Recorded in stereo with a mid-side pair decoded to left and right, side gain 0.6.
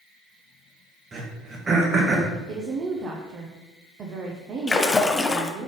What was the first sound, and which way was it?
Throat clearing, 35° right.